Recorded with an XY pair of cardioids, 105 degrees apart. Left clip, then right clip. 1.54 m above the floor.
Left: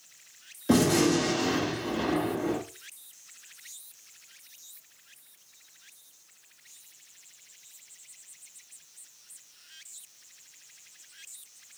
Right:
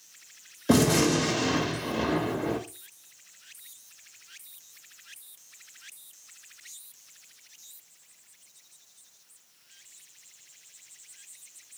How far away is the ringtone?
No ringtone in this recording.